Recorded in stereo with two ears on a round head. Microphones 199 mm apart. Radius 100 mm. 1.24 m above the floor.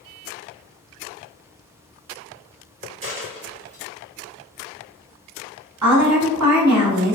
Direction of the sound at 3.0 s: 35° right (ahead or behind).